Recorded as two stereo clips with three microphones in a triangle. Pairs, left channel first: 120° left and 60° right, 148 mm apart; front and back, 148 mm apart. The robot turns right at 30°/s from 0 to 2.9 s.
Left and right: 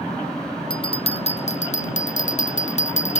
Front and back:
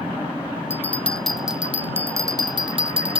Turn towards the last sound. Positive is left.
turn(degrees=135)